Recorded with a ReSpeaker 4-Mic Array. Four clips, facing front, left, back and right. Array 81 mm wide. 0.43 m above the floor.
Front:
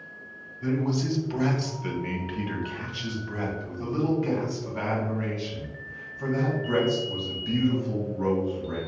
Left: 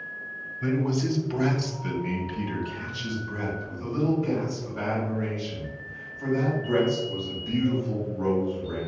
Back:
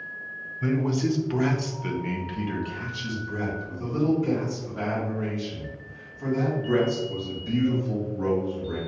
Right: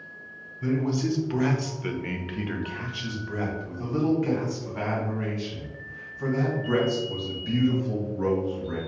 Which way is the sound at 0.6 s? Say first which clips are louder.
Even, back 2 dB; 160° left.